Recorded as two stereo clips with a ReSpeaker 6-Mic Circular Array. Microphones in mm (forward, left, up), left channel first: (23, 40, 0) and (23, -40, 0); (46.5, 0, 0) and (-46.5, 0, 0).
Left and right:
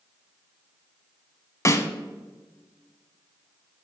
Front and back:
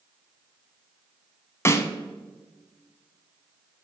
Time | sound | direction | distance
1.6 | a snare drum | 50° left | 0.5 m